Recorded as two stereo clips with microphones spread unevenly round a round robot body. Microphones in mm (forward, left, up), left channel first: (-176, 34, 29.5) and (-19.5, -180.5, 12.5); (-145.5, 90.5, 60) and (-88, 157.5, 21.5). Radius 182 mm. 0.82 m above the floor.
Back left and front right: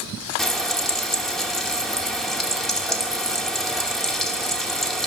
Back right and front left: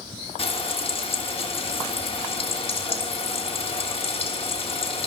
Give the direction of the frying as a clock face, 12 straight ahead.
5 o'clock.